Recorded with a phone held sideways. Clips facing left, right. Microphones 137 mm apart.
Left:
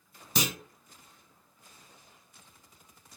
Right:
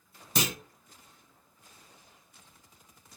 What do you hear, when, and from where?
0.3 s a clunk: centre (ahead or behind), 1.0 m